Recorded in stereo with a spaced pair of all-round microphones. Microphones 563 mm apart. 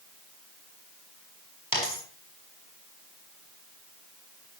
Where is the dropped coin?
35° left (ahead or behind), 5.5 m.